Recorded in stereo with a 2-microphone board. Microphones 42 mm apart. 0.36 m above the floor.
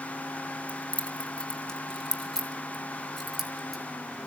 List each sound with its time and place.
0.7 s keys jangling: 35° left (ahead or behind), 2 m; by 3.8 s 5° right (ahead or behind), 3.5 m